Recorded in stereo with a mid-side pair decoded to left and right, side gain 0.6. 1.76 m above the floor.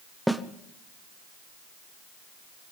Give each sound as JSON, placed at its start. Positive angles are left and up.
{"t": 0.3, "sound": "a snare drum", "azimuth_deg": 0, "distance_m": 1.2}